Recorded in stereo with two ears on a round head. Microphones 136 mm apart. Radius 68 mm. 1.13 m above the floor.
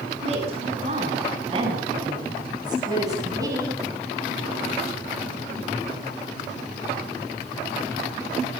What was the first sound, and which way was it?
A woman speaking, 45° right (ahead or behind).